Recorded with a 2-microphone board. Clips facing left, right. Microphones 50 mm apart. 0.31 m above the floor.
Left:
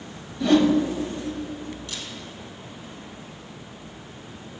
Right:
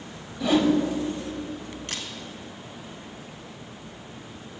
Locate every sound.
0.4 s a whoosh: 5° right (ahead or behind), 0.7 m
1.9 s a camera shutter: 55° right (ahead or behind), 0.8 m